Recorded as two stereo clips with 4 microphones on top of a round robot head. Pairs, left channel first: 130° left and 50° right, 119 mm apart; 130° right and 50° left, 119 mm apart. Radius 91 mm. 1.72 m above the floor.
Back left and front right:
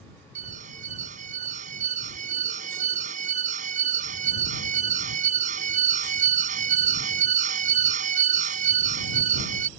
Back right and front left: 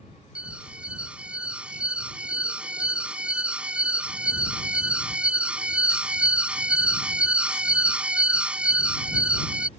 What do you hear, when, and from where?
0.3 s an alarm: 30° right